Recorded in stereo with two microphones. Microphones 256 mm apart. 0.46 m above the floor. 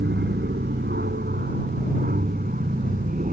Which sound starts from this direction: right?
An aircraft, at 0.0 s.